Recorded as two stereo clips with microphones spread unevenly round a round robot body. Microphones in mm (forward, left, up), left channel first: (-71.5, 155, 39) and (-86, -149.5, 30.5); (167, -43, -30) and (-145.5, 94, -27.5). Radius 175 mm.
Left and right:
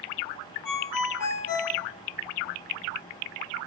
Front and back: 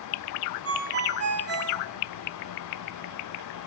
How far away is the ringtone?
About 1.0 m.